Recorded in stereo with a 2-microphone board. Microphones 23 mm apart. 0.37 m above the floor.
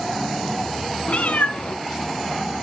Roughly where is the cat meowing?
Left.